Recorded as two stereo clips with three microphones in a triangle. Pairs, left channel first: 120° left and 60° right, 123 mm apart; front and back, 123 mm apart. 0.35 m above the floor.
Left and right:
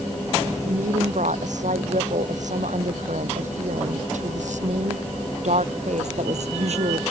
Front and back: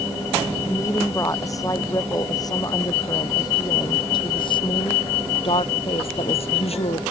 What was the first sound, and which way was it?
A woman speaking, 65° right.